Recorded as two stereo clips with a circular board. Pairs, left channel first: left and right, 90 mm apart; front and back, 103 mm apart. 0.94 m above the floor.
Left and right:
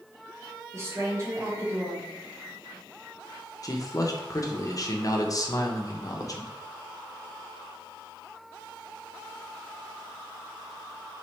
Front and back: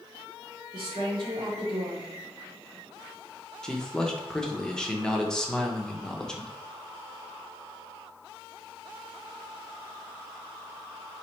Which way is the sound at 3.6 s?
80° left.